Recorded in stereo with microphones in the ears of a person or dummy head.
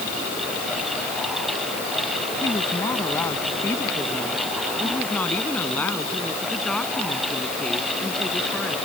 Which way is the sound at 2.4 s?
15° left (ahead or behind).